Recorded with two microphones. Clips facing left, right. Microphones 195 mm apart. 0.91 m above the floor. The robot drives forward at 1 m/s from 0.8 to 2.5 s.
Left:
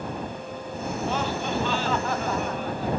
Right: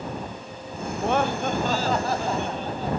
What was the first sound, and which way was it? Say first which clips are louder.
Laughter: right 5 dB; 70° right (ahead or behind).